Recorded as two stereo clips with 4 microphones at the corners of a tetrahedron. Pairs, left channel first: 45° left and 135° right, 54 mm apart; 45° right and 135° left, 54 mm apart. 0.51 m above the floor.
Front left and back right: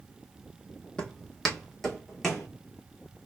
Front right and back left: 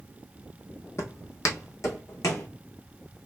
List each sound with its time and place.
1.0 s footsteps: 25° right, 0.9 m; by 2.5 s 45° right, 1.8 m